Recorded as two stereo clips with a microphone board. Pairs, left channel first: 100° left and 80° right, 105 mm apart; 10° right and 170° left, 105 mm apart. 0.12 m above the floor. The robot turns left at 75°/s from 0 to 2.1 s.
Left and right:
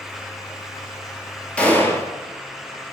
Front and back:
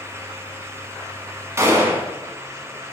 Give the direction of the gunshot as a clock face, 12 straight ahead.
7 o'clock.